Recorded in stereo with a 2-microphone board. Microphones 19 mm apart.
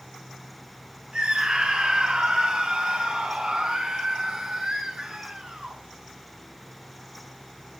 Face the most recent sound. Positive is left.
turn(degrees=-40)  # may be behind; listen again after turning